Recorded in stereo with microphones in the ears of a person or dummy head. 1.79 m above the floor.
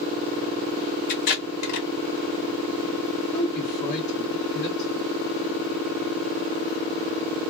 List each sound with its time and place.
1.1 s tape being pulled: 40° left (ahead or behind), 1.2 m
3.3 s a woman speaking: 40° left (ahead or behind), 1.4 m